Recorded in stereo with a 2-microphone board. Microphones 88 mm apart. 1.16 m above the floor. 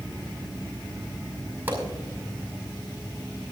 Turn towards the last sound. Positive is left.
turn(degrees=-20)  # may be behind; listen again after turning